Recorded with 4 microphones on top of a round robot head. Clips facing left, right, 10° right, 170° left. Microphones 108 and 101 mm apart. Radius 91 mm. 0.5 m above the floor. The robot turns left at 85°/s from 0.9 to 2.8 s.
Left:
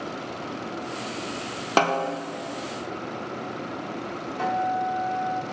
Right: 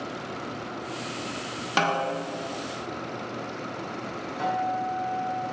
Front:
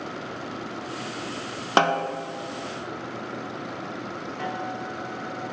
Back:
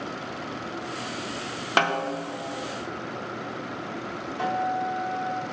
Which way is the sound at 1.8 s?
50° left.